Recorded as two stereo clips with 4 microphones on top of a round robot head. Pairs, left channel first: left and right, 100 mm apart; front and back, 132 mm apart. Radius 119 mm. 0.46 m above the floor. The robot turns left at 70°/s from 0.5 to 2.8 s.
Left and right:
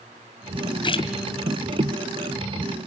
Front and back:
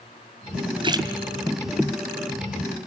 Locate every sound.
0.8 s a splash: 130° left, 2 m; by 1.1 s 110° left, 2 m